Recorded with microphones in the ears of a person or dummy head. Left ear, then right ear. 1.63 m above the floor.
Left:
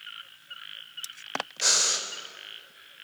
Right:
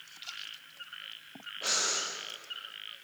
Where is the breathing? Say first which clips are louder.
Left 6 dB; 75° left (ahead or behind), 3.5 m.